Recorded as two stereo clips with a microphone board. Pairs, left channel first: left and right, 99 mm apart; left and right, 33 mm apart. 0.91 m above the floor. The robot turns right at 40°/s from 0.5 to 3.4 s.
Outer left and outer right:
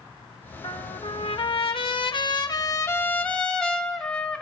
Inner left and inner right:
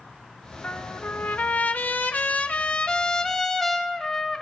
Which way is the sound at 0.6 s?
60° left.